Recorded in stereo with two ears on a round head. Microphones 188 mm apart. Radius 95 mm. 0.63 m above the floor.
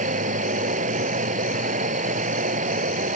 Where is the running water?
40° right (ahead or behind).